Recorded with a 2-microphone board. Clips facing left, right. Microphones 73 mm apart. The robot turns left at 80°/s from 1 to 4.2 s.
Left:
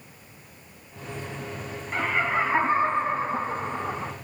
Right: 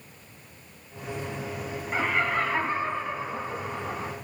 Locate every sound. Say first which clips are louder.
1.9 s laughter: left 1 dB; 170° right, 1.7 m; by 4.1 s 15° left, 1.7 m